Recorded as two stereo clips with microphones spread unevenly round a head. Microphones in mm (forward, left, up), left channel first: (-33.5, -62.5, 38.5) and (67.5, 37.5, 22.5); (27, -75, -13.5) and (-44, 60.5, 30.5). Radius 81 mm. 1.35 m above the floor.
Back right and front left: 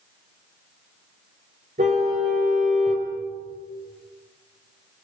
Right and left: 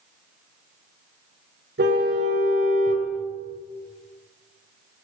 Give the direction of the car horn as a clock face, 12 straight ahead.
9 o'clock.